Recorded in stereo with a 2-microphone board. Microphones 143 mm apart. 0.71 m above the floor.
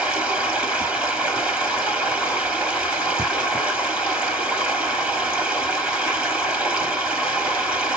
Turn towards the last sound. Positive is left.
turn(degrees=-10)  # may be behind; listen again after turning